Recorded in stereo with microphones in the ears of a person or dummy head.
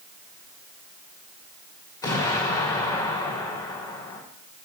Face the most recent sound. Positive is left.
turn(degrees=20)  # may be behind; listen again after turning